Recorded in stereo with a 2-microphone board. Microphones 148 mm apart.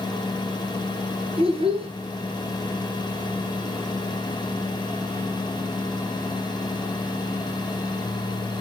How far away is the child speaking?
About 1.4 m.